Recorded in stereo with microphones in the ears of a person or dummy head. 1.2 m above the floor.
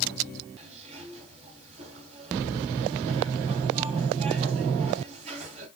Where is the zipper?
40° right (ahead or behind), 3 m.